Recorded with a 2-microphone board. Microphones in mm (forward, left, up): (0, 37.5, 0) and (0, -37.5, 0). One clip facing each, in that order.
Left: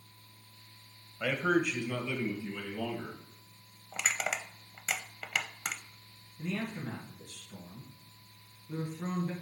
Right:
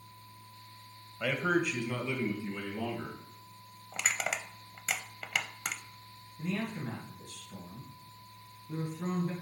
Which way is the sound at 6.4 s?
15° right (ahead or behind).